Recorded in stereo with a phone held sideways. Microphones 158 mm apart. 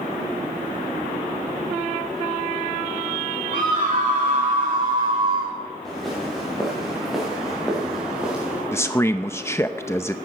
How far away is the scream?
About 2 m.